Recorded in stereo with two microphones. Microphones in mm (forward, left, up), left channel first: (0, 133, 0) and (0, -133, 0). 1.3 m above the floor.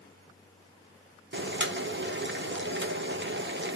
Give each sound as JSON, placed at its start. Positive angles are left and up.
{"t": 1.3, "sound": "boiling", "side_deg": -45, "distance_m": 0.7}